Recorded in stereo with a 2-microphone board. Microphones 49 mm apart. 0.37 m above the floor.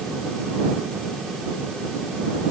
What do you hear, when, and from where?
Only background noise.